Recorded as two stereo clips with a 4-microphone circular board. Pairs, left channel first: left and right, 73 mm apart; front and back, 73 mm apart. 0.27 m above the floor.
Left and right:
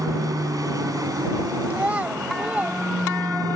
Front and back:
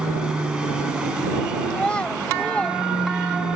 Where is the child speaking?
50° right.